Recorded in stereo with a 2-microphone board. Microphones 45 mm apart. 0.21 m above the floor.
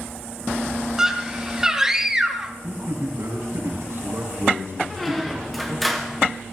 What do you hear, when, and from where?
1.0 s a scream: 10° right (ahead or behind), 1.4 m
2.6 s a man speaking: 65° right (ahead or behind), 4 m
4.9 s a squeak: 5° left (ahead or behind), 1.6 m